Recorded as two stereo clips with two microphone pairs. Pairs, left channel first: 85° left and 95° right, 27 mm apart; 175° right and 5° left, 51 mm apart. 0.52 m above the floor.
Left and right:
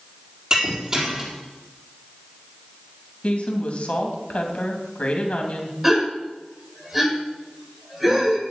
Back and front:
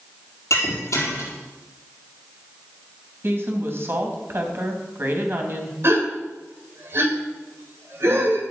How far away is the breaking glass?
About 4 m.